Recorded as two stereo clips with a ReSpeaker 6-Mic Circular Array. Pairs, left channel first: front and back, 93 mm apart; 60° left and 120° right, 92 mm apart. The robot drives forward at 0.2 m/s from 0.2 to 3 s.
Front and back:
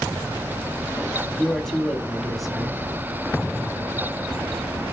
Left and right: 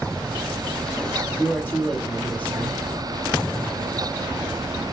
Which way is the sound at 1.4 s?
65° left.